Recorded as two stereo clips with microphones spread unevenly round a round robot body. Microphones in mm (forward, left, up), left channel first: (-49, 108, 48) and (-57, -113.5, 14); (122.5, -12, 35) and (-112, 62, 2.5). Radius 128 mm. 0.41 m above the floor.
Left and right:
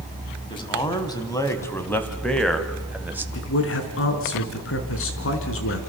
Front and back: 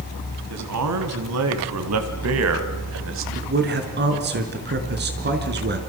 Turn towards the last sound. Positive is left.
turn(degrees=115)